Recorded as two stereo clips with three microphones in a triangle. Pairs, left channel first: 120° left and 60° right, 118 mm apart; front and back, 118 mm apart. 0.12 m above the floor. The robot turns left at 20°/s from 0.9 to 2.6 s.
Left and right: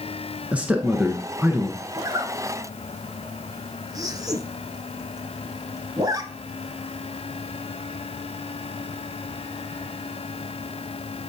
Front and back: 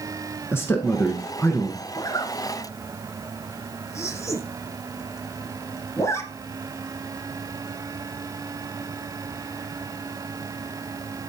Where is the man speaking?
5° right, 1.1 m; by 1.8 s 20° right, 1.1 m.